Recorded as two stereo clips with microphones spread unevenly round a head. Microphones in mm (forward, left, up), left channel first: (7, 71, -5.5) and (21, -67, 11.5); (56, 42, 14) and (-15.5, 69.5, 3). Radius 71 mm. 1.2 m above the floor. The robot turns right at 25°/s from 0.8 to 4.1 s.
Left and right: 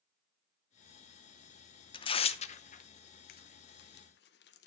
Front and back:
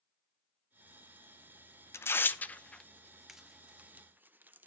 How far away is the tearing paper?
About 0.8 m.